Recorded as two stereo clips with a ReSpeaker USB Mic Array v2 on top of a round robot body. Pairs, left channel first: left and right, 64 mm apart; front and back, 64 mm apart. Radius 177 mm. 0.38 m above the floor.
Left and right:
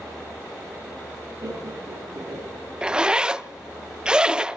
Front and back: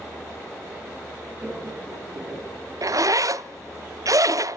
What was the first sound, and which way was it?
Laughter, 115° right.